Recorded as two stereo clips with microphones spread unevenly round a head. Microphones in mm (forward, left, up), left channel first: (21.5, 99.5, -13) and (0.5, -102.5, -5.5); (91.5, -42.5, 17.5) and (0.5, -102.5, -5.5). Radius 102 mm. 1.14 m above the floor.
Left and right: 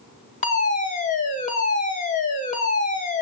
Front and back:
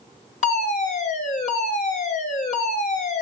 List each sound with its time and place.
0.4 s a fire alarm: 35° left, 2.5 m